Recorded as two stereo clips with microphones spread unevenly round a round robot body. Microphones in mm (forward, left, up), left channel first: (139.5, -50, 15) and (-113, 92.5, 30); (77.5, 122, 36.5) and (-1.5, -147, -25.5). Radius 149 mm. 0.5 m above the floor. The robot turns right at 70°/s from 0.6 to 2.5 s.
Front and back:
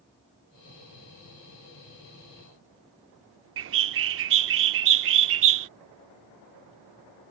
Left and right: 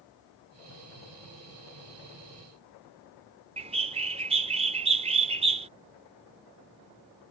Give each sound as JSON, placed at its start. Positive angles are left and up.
{"t": 3.6, "sound": "a bird", "azimuth_deg": -165}